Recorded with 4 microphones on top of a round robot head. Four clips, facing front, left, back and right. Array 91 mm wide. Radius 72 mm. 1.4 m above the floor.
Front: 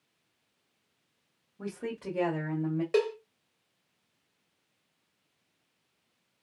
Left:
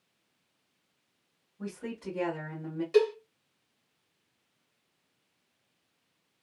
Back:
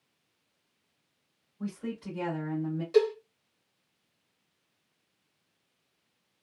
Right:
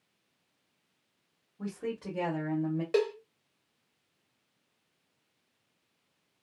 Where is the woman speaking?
20° right, 1.6 m; by 2.8 s 40° right, 1.5 m.